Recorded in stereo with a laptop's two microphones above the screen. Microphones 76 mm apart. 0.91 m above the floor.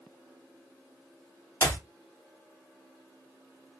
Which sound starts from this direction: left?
A clap, at 1.6 s.